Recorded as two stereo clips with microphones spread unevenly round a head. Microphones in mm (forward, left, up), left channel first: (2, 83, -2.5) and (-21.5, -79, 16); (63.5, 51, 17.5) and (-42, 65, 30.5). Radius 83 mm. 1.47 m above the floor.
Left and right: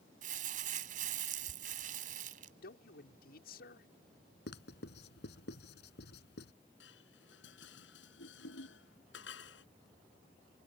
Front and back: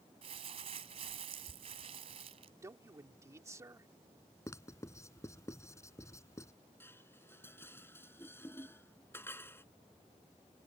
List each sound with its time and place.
0.2 s crumpling: 135° right
2.6 s a man speaking: 110° left
4.5 s writing: 55° left
6.8 s dishes clattering: 60° left